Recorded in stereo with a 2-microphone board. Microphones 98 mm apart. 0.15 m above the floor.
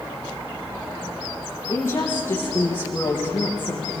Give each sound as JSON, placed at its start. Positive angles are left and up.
{"t": 1.7, "sound": "a woman speaking", "side_deg": 25, "distance_m": 5.0}